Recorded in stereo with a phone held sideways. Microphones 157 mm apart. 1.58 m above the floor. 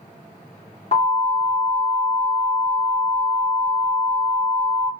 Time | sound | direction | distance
0.9 | an alarm | 40° left (ahead or behind) | 1.9 m